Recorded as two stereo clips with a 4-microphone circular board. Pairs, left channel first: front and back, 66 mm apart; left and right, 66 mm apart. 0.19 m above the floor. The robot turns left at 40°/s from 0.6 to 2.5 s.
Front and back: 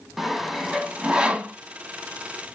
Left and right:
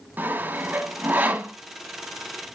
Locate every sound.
0.2 s sawing: 100° right, 0.7 m; by 1.5 s 140° right, 0.7 m